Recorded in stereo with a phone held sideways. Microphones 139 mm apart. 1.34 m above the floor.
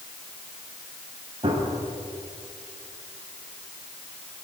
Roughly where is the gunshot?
Right.